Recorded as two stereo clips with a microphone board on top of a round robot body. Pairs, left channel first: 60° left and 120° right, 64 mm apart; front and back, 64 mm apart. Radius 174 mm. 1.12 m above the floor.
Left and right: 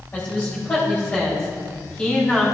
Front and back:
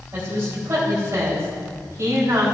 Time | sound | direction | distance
0.1 | a woman speaking | 130° left | 4 m